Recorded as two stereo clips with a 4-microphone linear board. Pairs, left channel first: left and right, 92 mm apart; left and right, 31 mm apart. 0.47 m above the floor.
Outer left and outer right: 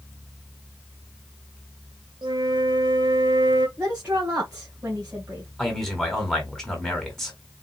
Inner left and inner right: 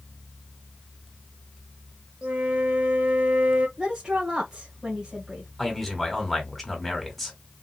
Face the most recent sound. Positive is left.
turn(degrees=5)  # may be behind; listen again after turning